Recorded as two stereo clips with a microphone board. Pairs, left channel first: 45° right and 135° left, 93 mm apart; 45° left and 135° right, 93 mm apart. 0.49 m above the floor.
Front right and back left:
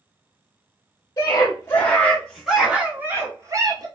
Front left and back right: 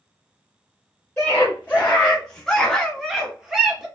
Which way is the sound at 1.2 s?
20° right.